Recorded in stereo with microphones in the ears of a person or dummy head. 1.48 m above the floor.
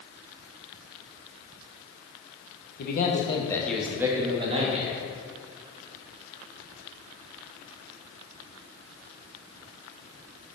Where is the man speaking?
50° left (ahead or behind), 0.6 m; by 5.0 s 40° right (ahead or behind), 0.9 m.